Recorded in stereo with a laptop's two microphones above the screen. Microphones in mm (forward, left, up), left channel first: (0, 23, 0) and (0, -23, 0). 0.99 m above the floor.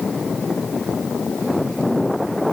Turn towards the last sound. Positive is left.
No sound to turn to.